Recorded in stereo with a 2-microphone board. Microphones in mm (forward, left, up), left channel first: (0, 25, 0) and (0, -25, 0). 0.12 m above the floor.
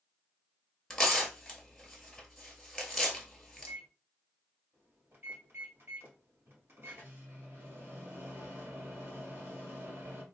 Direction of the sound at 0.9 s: 5° left (ahead or behind).